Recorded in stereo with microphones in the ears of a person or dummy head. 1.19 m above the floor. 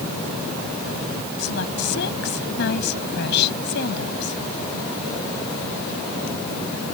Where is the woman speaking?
60° left (ahead or behind).